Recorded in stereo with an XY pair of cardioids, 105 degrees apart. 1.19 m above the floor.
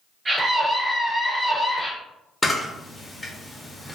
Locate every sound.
0.2 s a scream: 30° right, 1.4 m; by 1.9 s 15° left, 1.6 m
2.4 s a camera shutter: 15° left, 1.3 m